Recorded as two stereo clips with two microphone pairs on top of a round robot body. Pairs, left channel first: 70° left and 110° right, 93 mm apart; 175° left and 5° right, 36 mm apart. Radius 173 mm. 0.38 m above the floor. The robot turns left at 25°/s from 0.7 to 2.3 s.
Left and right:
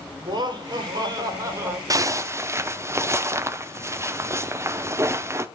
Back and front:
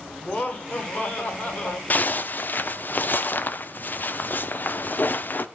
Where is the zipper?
155° right, 0.7 m; by 5.5 s 165° right, 0.7 m.